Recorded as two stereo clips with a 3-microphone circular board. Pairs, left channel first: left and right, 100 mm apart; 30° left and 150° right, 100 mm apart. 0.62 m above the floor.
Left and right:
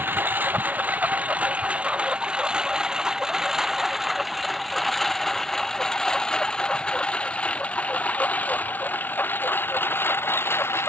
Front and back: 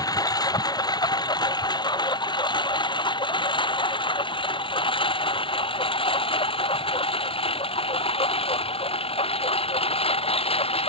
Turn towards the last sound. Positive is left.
turn(degrees=25)